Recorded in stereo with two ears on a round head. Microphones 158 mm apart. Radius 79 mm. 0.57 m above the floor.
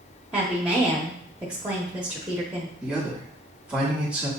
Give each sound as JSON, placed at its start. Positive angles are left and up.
{"t": 0.3, "sound": "a woman speaking", "side_deg": -5, "distance_m": 0.8}
{"t": 2.8, "sound": "a man speaking", "side_deg": -5, "distance_m": 1.4}